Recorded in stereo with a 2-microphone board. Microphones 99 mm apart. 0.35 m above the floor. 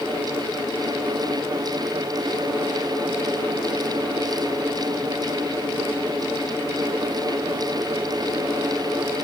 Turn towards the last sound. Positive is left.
No sound to turn to.